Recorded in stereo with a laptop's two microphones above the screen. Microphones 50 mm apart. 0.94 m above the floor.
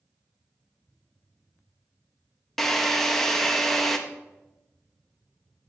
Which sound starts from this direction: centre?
A drill, at 2.6 s.